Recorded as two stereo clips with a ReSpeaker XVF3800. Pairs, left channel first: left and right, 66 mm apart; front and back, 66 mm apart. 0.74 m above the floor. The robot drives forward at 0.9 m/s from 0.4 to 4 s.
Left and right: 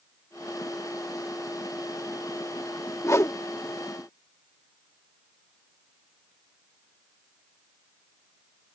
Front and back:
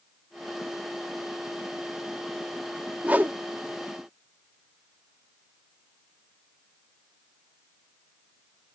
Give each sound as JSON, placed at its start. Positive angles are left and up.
{"t": 3.0, "sound": "a whoosh", "azimuth_deg": 115}